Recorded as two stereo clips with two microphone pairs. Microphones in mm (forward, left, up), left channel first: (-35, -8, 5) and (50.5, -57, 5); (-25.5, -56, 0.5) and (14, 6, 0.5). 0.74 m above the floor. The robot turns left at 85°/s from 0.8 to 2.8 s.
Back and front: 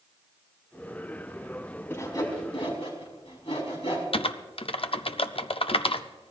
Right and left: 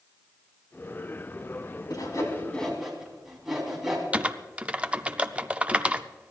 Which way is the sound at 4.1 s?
135° left.